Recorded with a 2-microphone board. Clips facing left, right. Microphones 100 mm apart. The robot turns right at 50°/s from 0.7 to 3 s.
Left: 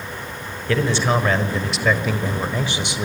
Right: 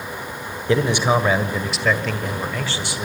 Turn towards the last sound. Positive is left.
turn(degrees=20)  # may be behind; listen again after turning